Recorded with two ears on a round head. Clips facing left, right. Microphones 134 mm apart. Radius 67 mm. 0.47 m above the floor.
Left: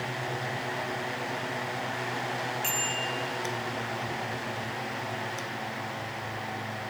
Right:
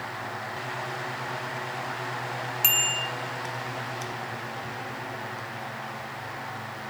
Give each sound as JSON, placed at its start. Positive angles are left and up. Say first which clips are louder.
{"t": 2.6, "sound": "a bicycle bell", "louder": "even", "side_deg": -80, "distance_m": 4.0}